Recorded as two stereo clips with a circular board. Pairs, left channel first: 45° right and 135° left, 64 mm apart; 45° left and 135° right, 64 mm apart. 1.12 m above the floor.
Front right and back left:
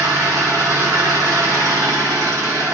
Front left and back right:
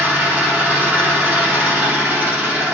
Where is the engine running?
160° left, 0.8 m.